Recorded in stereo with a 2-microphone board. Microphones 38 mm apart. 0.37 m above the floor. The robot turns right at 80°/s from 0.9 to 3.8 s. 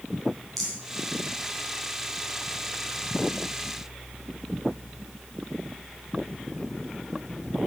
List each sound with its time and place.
0.6 s a rattle: 5° left (ahead or behind), 3 m